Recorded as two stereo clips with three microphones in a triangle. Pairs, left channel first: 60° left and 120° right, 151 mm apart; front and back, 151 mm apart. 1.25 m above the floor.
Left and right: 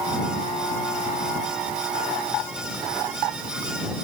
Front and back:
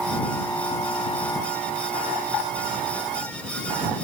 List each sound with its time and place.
Only background noise.